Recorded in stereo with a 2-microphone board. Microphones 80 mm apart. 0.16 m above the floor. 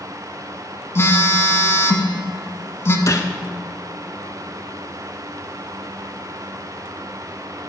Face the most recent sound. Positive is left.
turn(degrees=45)  # may be behind; listen again after turning